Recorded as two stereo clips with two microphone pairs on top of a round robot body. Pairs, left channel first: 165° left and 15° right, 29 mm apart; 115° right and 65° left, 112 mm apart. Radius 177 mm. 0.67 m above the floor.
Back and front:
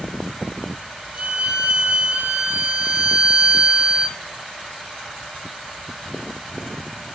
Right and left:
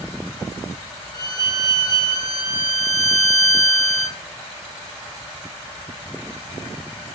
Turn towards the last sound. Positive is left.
turn(degrees=-65)